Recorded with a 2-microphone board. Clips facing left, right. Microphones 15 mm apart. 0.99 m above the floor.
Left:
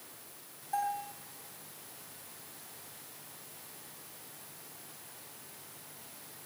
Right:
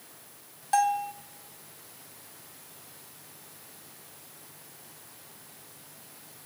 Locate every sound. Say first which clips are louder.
0.7 s a bell: right 9 dB; 80° right, 2.5 m